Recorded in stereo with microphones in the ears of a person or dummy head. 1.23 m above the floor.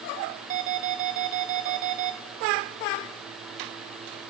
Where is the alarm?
45° right (ahead or behind), 1.0 m.